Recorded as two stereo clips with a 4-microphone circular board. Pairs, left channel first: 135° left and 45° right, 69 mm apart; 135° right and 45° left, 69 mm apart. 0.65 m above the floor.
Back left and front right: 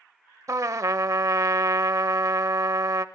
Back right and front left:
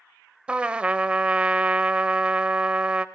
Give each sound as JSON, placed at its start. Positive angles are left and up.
{"t": 0.5, "sound": "a trumpet", "azimuth_deg": -25, "distance_m": 0.6}